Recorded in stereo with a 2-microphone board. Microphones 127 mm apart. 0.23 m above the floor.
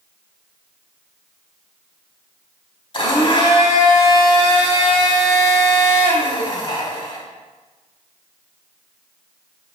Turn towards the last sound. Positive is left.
turn(degrees=40)  # may be behind; listen again after turning